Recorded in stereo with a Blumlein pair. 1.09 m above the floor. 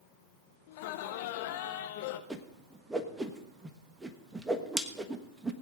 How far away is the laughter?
About 1.3 m.